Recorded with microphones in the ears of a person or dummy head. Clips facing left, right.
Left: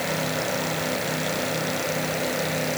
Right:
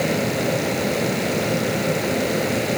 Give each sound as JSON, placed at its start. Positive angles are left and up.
{"t": 0.0, "sound": "a fan", "side_deg": -50}